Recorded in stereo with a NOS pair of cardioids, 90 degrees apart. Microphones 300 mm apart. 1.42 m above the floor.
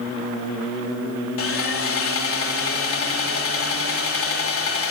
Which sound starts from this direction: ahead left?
Sawing, at 1.4 s.